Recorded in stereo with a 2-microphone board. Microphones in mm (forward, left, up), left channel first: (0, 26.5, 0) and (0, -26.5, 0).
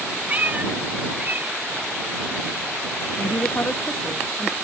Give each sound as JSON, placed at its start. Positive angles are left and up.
{"t": 0.3, "sound": "a cat meowing", "side_deg": -35}
{"t": 3.2, "sound": "a woman speaking", "side_deg": 45}